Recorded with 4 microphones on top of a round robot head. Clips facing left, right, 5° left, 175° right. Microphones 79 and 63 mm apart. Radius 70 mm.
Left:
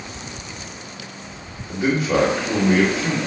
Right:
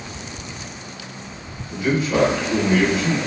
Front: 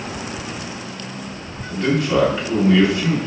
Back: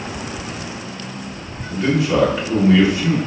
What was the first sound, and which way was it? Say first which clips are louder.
A man speaking: left 1 dB, back 1 dB; 100° left.